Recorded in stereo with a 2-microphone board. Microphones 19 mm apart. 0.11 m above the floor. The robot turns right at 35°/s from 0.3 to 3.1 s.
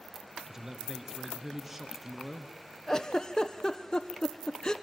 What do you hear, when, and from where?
0.5 s a man speaking: 25° right (ahead or behind), 1.4 m; by 2.5 s 5° right (ahead or behind), 1.4 m
2.9 s a giggle: 25° left (ahead or behind), 1.2 m; by 4.7 s 35° left (ahead or behind), 1.2 m